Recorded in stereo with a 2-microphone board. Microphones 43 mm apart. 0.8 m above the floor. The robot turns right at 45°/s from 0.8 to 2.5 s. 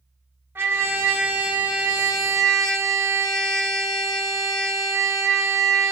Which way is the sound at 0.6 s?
60° right.